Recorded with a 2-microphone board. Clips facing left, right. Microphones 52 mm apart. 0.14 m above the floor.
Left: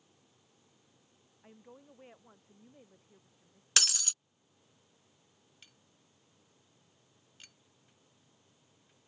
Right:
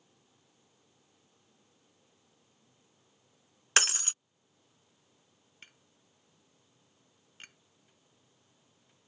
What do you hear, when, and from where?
1.4 s a woman speaking: 75° left (ahead or behind); by 3.7 s 65° left (ahead or behind)
3.8 s breaking glass: 35° right (ahead or behind)
5.6 s tapping: 40° right (ahead or behind)